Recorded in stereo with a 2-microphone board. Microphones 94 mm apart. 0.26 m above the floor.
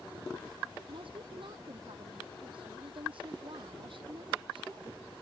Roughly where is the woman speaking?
Right.